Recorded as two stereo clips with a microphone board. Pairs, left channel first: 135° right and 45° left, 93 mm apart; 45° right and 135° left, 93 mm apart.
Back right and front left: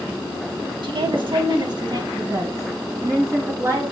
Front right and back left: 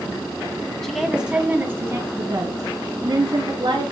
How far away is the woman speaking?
About 1.9 m.